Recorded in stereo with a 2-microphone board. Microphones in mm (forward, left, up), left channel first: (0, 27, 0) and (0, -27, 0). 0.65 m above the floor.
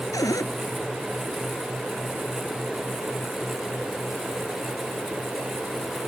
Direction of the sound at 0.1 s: 85° left.